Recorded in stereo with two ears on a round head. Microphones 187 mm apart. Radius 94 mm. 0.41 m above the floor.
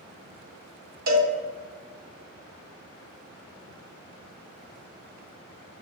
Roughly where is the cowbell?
Right.